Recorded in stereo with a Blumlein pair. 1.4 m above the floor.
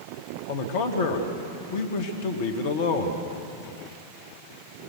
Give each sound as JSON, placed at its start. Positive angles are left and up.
{"t": 0.5, "sound": "a man speaking", "azimuth_deg": 55, "distance_m": 2.0}